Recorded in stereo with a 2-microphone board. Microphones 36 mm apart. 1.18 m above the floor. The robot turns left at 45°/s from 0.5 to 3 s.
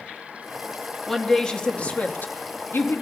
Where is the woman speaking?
175° left, 1.8 m; by 3.0 s 90° left, 1.8 m.